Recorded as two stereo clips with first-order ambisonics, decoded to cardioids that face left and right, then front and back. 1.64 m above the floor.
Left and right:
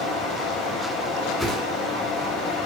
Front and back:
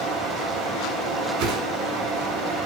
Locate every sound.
0.0 s running water: 135° left, 8.5 m
1.4 s a whoosh: 175° left, 2.5 m